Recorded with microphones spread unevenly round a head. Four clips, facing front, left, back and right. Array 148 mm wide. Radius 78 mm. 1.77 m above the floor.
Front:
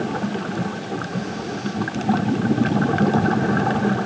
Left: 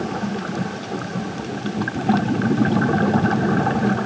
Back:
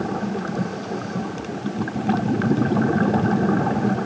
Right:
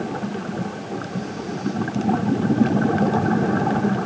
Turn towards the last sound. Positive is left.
No sound to turn to.